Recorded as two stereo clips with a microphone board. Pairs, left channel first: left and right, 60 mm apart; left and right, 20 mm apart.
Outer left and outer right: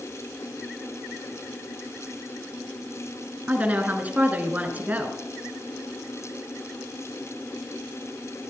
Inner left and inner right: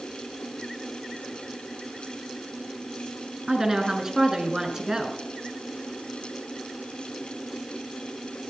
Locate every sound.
3.5 s a woman speaking: 25° right (ahead or behind), 2 m